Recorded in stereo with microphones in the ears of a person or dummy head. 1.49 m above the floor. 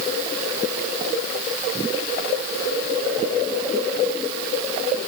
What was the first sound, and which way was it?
Only background noise.